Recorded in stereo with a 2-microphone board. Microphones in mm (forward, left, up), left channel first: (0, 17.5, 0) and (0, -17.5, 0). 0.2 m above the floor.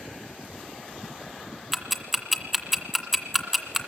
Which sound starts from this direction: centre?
Ticking, at 1.7 s.